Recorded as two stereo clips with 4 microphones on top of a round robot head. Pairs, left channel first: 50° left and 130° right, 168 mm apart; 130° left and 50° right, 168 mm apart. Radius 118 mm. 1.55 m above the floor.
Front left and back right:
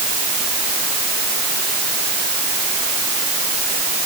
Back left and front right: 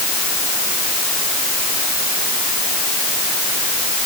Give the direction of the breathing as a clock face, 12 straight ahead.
No breathing in this recording.